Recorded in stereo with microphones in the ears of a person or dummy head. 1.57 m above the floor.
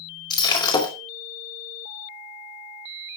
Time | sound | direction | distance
0.3 | breaking glass | 25° left (ahead or behind) | 3.5 m